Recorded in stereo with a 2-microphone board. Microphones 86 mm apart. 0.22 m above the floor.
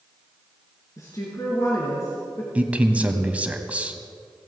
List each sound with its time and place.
1.0 s a woman speaking: 40° left (ahead or behind), 3 m
2.5 s a man speaking: 15° right (ahead or behind), 1.2 m